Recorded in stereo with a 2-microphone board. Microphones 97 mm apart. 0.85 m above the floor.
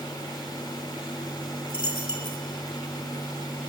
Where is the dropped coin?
55° left (ahead or behind), 2.5 m.